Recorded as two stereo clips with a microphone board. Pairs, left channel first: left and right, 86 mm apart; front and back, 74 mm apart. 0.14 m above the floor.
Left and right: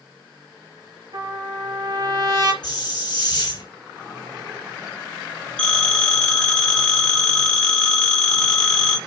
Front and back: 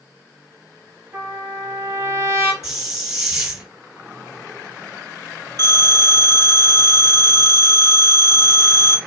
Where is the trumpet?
120° right, 1.3 m.